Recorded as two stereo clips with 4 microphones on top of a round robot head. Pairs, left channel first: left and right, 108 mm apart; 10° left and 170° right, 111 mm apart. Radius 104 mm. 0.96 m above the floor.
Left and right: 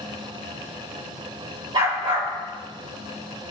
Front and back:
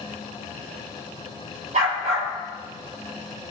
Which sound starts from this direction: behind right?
A dog barking, at 1.7 s.